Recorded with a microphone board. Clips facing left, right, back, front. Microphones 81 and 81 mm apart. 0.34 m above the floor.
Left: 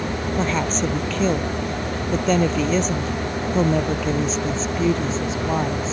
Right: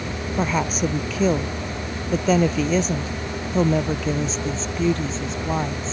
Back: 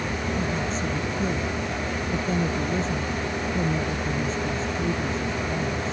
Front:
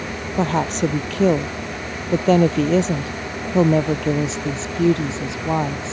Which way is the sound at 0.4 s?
10° right.